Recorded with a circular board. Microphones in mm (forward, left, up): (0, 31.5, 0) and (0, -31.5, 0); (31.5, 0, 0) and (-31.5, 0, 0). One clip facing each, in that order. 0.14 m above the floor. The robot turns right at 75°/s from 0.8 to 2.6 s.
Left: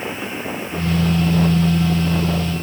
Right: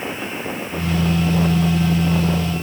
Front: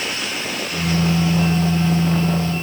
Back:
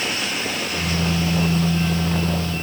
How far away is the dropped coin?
I don't hear a dropped coin.